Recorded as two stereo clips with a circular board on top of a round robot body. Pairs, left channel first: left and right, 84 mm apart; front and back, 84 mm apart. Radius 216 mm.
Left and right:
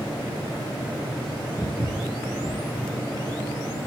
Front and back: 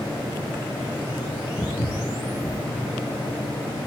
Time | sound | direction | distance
1.6 | footsteps | 15° right | 1.9 m